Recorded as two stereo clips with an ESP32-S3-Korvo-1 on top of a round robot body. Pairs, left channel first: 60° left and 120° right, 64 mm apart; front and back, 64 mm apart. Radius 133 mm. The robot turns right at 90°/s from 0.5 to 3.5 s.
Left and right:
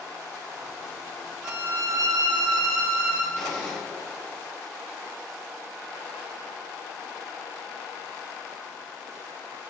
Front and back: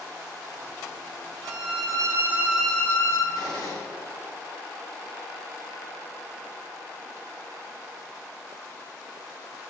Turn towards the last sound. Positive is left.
turn(degrees=-20)